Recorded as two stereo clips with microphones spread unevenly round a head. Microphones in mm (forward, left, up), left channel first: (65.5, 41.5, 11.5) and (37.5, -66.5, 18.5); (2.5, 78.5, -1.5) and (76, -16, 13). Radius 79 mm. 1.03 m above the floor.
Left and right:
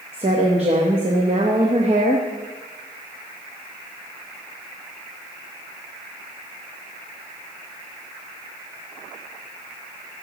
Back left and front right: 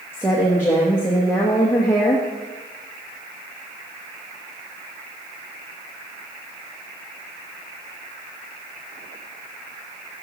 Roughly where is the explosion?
I don't hear an explosion.